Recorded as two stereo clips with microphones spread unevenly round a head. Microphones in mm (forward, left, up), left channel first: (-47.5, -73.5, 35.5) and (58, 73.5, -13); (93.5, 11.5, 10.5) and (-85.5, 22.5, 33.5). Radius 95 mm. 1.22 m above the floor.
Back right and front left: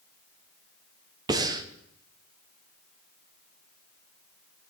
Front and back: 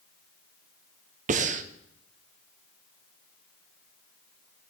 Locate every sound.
1.3 s breathing: 130° left, 0.5 m